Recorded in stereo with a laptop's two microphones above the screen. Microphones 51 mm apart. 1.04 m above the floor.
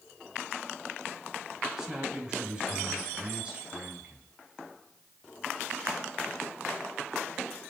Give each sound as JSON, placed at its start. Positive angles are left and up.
{"t": 1.8, "sound": "a man speaking", "side_deg": -10, "distance_m": 6.5}